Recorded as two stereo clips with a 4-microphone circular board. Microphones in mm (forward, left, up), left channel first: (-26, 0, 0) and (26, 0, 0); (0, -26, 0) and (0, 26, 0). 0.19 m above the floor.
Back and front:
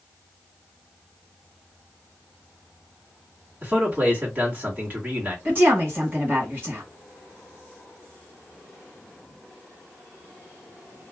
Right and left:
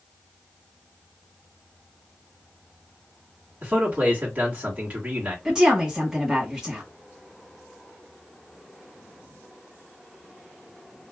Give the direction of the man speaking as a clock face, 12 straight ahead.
11 o'clock.